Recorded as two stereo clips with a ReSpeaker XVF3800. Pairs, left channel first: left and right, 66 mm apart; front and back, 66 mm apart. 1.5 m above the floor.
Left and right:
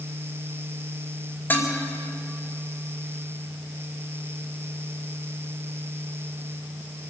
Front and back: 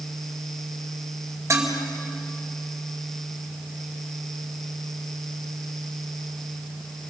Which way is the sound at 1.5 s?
145° left.